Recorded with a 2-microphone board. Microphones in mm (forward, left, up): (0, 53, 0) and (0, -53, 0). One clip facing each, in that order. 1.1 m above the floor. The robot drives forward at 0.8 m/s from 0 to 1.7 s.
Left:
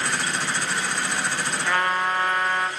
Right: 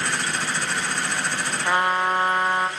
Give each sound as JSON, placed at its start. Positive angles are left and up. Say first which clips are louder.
{"t": 1.6, "sound": "a trumpet", "louder": "right 2 dB", "side_deg": -20, "distance_m": 0.6}